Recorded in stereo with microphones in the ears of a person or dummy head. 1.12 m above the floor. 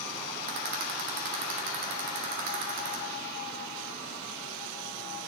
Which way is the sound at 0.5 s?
60° right (ahead or behind).